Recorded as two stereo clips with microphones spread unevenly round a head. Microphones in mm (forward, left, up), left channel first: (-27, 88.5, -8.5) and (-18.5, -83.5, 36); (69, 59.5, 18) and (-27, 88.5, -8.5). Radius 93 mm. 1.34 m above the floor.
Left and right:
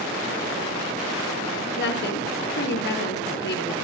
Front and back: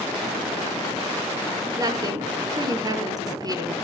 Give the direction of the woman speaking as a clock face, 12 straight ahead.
8 o'clock.